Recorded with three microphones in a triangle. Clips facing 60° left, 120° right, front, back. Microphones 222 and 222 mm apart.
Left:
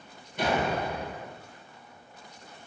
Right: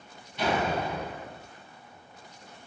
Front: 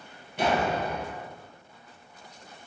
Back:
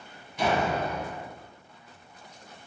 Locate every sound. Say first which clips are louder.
0.4 s a door slam: even, even; 25° left, 1.1 m